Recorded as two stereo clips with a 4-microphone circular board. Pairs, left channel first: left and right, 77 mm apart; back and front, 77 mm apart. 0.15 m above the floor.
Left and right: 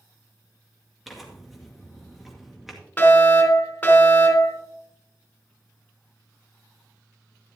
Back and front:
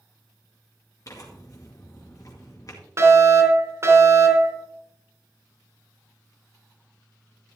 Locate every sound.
1.1 s tearing paper: 175° right, 2 m
3.0 s a fire alarm: 30° left, 3 m